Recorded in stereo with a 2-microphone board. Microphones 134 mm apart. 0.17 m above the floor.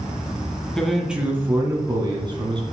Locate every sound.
0.8 s a man speaking: 5° left (ahead or behind), 1.4 m; by 2.6 s 35° right (ahead or behind), 2.5 m